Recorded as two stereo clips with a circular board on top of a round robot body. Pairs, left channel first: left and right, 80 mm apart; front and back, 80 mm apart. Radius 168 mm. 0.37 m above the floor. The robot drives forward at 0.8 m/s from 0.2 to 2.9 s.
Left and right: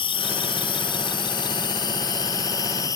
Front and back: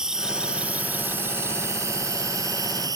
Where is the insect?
95° left; by 3.0 s 135° left.